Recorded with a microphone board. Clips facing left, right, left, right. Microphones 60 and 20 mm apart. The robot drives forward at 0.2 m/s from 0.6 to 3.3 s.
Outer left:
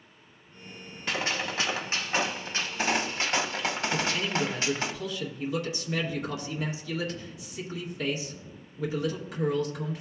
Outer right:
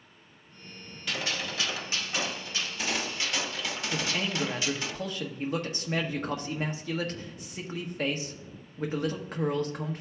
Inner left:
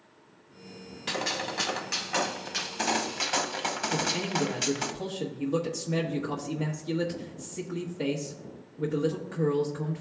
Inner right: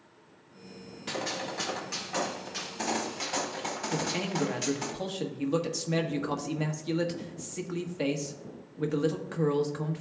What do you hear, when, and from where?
1.1 s a gunshot: 35° left (ahead or behind), 1.0 m; by 4.9 s 45° left (ahead or behind), 0.8 m
3.9 s a man speaking: 45° right (ahead or behind), 1.1 m